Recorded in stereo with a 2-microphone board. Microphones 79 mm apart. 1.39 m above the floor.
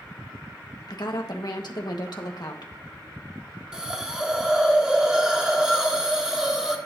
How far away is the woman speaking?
About 1.5 m.